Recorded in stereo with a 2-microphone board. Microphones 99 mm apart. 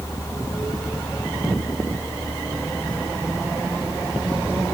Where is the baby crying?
I don't hear a baby crying.